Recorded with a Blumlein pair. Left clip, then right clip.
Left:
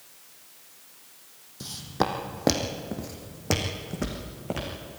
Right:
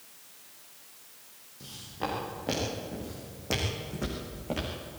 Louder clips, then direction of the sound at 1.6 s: Left 8 dB; 60° left.